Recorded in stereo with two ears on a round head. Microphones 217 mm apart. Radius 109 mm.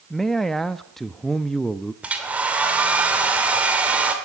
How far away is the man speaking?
About 0.6 m.